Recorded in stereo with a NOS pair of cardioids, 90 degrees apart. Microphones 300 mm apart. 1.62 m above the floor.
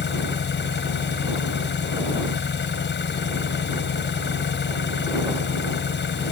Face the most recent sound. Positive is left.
turn(degrees=40)